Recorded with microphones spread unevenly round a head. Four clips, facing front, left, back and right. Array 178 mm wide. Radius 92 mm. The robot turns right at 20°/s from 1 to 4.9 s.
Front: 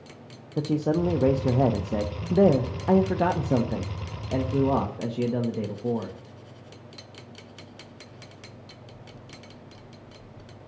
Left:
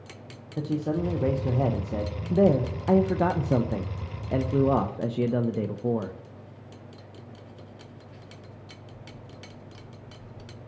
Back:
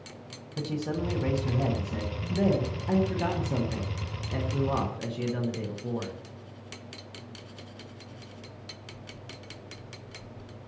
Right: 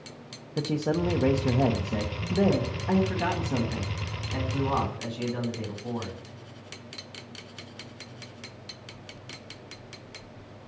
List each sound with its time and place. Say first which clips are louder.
0.6 s a man speaking: right 1 dB, front 7 dB; 20° right, 0.9 m; by 6.2 s 60° left, 0.9 m